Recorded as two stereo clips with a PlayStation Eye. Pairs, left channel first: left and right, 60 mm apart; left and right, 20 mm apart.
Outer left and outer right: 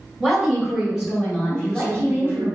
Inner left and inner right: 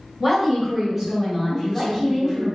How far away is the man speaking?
About 0.8 m.